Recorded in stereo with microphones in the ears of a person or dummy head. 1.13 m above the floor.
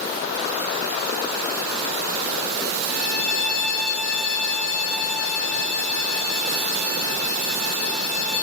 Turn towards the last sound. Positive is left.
turn(degrees=60)  # may be behind; listen again after turning